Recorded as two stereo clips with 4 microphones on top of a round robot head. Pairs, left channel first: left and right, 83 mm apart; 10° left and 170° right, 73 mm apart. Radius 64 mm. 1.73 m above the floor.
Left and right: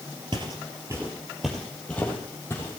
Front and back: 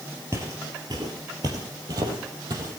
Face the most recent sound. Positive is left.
turn(degrees=155)